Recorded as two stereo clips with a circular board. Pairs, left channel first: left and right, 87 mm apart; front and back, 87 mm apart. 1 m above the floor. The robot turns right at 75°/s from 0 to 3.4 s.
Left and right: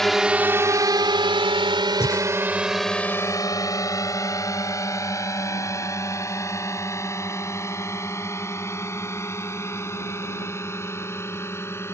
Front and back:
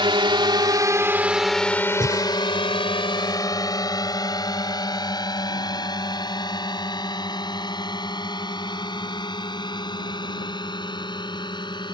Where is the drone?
175° left; by 11.9 s 30° left.